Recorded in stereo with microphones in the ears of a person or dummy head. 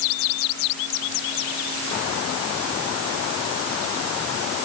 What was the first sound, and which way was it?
Only background noise.